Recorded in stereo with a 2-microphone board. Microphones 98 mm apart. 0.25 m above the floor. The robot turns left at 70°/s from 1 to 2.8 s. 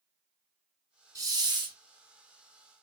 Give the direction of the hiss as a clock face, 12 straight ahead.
2 o'clock.